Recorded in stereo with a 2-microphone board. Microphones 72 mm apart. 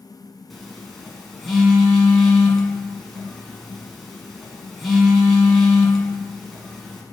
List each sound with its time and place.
0.5 s a phone buzzing: centre (ahead or behind), 1.5 m